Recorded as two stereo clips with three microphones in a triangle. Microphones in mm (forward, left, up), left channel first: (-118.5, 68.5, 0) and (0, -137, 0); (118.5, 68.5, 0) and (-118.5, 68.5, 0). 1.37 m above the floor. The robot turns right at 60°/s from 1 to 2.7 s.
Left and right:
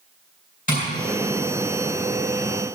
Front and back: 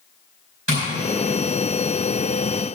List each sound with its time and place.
0.7 s tapping: 175° left, 4.5 m